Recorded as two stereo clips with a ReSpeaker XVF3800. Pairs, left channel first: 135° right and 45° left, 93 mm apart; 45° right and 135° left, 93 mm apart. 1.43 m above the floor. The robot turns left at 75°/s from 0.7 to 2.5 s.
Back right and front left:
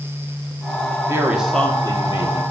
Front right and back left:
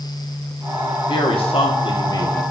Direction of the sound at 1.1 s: 15° right.